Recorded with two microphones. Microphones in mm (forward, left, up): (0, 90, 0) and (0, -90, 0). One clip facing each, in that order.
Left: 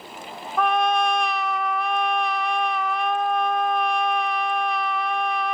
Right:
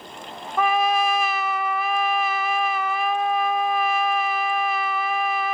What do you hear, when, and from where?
0.6 s a trumpet: 5° right (ahead or behind), 0.5 m